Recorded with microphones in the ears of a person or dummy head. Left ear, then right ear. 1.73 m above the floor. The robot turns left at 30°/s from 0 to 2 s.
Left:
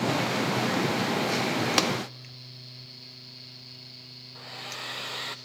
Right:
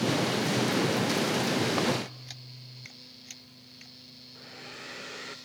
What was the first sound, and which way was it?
Tapping, 75° left (ahead or behind).